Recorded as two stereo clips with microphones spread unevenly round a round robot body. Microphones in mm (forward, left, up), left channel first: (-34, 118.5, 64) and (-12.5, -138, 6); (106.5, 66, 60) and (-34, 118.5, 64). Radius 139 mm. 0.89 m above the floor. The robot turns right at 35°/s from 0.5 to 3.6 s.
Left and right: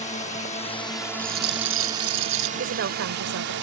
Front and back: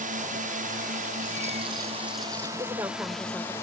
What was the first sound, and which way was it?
A drone, 160° left.